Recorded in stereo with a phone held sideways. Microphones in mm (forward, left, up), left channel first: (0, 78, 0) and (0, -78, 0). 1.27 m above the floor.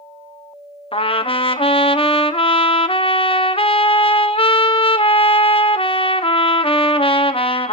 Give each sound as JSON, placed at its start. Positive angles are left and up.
{"t": 0.9, "sound": "a trumpet", "side_deg": 35, "distance_m": 0.6}